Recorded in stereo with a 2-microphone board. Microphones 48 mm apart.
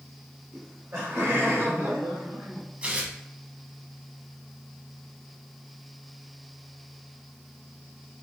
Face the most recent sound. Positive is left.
turn(degrees=-25)  # may be behind; listen again after turning